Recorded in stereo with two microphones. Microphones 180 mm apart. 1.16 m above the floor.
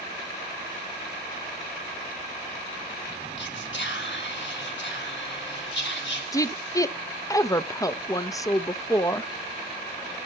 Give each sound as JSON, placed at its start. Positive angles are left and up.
{"t": 3.4, "sound": "whispering", "side_deg": 85, "distance_m": 4.0}
{"t": 6.3, "sound": "a woman speaking", "side_deg": 20, "distance_m": 0.7}